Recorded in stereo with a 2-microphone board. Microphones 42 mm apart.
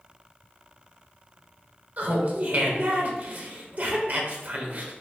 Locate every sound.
2.0 s laughter: 45° right (ahead or behind), 0.9 m